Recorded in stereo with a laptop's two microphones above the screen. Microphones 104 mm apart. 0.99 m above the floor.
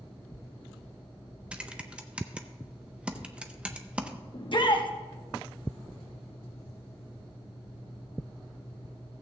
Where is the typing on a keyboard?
10° right (ahead or behind), 0.6 m.